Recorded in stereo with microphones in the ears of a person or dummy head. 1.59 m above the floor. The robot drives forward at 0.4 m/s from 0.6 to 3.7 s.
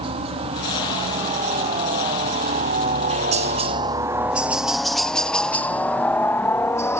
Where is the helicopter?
25° right (ahead or behind); by 7.0 s 10° left (ahead or behind).